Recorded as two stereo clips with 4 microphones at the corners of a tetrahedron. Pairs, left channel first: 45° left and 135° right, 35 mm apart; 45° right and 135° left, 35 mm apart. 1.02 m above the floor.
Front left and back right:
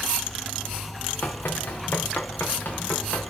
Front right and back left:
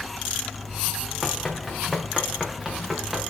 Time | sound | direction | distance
1.2 | running footsteps | 35° left | 3 m